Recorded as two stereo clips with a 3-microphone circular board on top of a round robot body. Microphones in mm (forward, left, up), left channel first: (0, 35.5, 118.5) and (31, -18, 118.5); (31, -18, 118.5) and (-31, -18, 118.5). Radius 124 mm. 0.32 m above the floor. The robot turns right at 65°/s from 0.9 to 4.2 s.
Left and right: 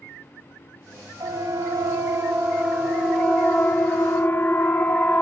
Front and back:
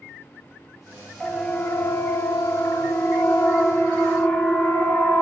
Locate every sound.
1.2 s a siren: 90° right, 3.5 m; by 5.2 s 50° left, 2.5 m